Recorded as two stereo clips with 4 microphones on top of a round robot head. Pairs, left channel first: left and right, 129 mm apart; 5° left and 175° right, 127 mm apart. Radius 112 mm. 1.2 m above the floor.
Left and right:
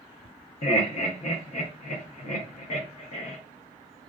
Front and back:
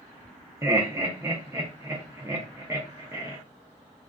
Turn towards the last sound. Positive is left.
turn(degrees=115)